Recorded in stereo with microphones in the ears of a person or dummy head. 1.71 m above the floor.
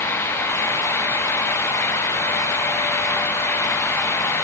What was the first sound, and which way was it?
Only background noise.